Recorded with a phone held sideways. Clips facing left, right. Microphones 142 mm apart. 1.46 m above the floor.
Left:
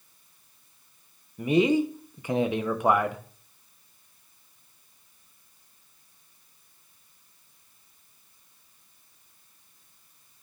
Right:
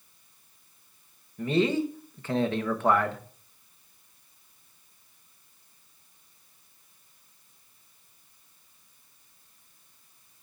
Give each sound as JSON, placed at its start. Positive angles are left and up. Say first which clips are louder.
{"t": 1.4, "sound": "a man speaking", "louder": "left 3 dB", "side_deg": 15, "distance_m": 0.8}